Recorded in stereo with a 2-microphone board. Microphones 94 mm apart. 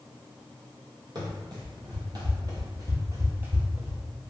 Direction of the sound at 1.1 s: 50° right (ahead or behind).